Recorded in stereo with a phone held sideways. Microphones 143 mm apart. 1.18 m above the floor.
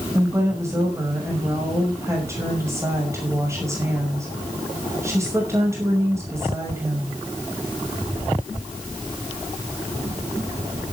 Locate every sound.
0.1 s a woman speaking: 20° right (ahead or behind), 6 m